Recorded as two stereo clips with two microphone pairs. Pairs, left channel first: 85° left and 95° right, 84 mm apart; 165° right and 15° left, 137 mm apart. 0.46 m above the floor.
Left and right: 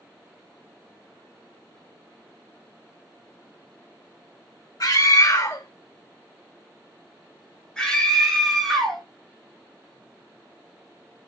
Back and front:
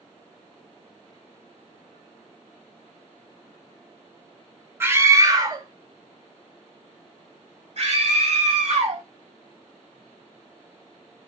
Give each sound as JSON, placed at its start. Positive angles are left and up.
{"t": 4.8, "sound": "a scream", "azimuth_deg": 85, "distance_m": 1.4}